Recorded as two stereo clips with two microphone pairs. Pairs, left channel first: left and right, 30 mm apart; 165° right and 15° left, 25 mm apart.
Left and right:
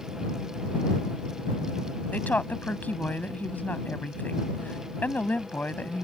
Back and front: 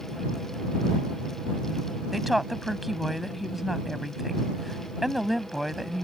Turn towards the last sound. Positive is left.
turn(degrees=100)